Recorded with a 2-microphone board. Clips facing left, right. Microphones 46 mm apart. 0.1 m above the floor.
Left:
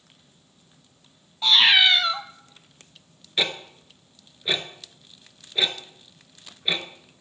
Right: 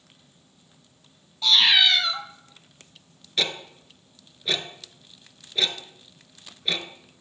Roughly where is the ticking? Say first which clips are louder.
Left 1 dB; centre.